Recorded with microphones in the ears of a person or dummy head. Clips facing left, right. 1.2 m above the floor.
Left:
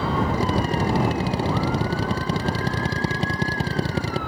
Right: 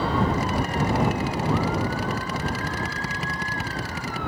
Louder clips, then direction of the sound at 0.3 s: Left 2 dB; 30° left (ahead or behind).